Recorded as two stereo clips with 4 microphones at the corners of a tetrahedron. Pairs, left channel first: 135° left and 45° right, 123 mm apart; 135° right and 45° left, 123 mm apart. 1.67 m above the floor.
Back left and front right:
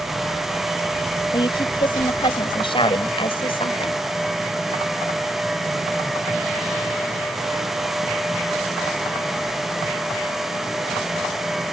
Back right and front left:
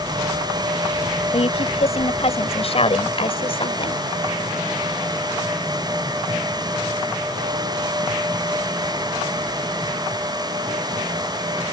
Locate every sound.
1.3 s a woman speaking: 170° right; by 4.0 s straight behind